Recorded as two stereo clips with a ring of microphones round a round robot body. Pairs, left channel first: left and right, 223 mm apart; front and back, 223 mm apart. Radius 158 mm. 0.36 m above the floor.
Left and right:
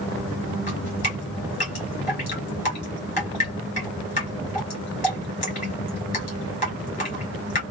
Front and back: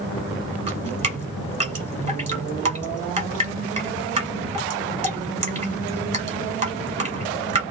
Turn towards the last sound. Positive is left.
turn(degrees=135)